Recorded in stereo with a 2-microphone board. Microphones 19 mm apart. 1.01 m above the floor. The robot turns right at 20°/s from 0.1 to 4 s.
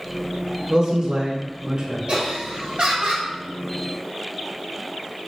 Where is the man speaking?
40° right (ahead or behind), 0.7 m; by 2.0 s 35° right (ahead or behind), 0.7 m.